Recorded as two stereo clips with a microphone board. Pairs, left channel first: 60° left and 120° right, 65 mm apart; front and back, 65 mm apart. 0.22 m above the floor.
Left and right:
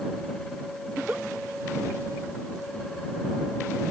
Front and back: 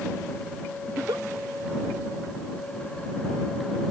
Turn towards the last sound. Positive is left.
turn(degrees=175)